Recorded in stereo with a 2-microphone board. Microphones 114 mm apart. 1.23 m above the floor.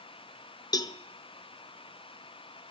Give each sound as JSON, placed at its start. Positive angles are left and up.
{"t": 0.7, "sound": "a cowbell", "side_deg": 35, "distance_m": 0.6}